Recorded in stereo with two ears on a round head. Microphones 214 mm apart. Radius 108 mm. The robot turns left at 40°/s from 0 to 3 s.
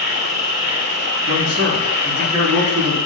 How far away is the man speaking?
About 5.5 m.